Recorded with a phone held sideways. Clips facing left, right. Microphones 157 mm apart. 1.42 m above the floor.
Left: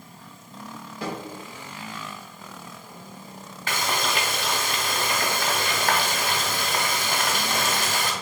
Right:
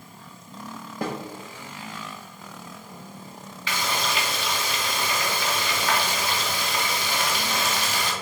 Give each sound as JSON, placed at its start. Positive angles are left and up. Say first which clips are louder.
{"t": 1.0, "sound": "a snare drum", "louder": "right 2 dB", "side_deg": -50, "distance_m": 0.8}
{"t": 3.7, "sound": "frying", "louder": "left 1 dB", "side_deg": 50, "distance_m": 0.7}